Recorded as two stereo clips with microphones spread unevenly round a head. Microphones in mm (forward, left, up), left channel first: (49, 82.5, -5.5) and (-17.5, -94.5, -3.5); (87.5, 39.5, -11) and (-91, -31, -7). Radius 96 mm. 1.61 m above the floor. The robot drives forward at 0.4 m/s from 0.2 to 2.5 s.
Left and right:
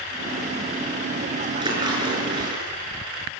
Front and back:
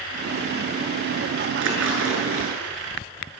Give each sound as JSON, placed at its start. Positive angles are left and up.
{"t": 1.6, "sound": "a splash", "azimuth_deg": 180, "distance_m": 8.0}